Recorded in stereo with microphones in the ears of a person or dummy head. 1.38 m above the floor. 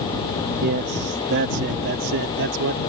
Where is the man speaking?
50° right (ahead or behind); by 2.8 s 70° right (ahead or behind).